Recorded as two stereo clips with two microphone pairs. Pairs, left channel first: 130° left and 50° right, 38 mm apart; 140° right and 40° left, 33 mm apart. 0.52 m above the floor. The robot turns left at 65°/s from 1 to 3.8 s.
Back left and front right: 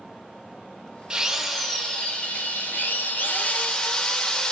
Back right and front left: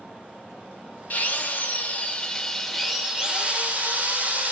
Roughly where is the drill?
Behind right.